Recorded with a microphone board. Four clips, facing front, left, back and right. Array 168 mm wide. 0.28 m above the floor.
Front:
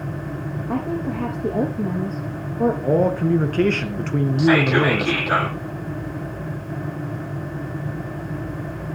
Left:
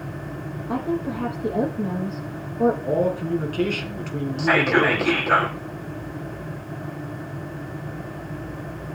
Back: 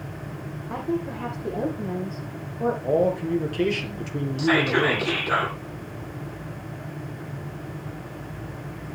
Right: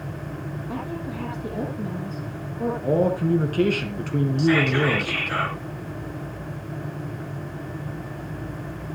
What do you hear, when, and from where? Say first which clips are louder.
0.7 s a woman speaking: left 8 dB, front 3 dB; 35° left, 7 m
2.8 s a man speaking: right 1 dB, front 1 dB; 15° right, 3 m
4.4 s whispering: left 3 dB, front 4 dB; 55° left, 8 m